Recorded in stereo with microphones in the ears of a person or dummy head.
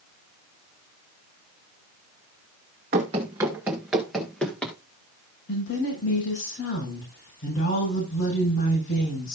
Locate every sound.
2.9 s running footsteps: 20° right (ahead or behind), 1.3 m; by 4.8 s 10° left (ahead or behind), 2 m
5.5 s a woman speaking: 65° left (ahead or behind), 8 m